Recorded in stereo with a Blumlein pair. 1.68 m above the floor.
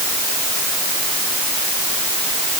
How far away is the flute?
No flute in this recording.